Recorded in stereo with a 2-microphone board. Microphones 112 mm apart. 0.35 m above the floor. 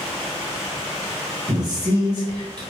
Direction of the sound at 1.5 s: 35° right (ahead or behind).